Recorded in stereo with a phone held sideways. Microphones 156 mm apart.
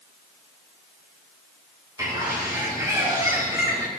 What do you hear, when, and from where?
2.0 s a bird: 25° right (ahead or behind), 3 m